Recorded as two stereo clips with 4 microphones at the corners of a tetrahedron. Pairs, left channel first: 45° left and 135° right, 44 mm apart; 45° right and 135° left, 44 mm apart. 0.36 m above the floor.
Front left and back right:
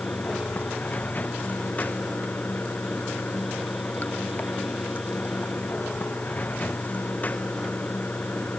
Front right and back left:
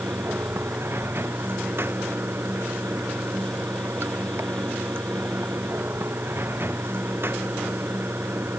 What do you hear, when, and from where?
0.0 s running water: 100° left